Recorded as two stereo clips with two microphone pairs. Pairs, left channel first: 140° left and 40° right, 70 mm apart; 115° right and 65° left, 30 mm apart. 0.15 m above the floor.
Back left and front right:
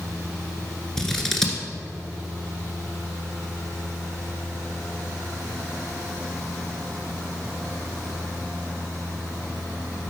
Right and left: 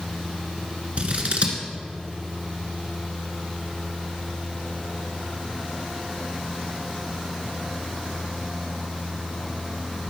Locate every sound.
1.0 s scissors: 60° left, 1.5 m